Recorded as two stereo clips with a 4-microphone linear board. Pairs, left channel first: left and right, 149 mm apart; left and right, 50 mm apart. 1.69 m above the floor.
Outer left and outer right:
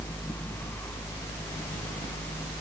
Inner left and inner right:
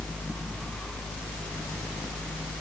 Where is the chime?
No chime in this recording.